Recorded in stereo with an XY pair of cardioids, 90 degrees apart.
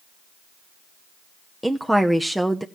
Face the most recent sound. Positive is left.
turn(degrees=-5)